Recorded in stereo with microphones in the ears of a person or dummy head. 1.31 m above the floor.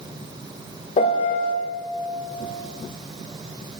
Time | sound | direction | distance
1.0 | a piano | 40° left (ahead or behind) | 1.6 m